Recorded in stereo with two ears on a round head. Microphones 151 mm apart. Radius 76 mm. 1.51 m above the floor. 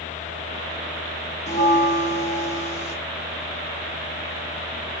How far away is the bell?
About 1.1 m.